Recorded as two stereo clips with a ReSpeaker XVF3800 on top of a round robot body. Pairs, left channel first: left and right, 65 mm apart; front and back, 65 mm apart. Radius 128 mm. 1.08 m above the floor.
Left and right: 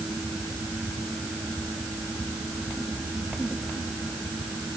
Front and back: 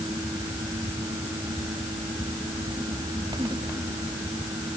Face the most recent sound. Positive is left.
No sound to turn to.